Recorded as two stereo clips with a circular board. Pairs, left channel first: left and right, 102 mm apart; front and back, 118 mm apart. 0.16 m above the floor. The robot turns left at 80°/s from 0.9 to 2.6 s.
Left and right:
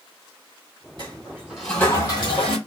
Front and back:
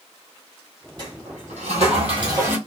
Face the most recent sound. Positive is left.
turn(degrees=100)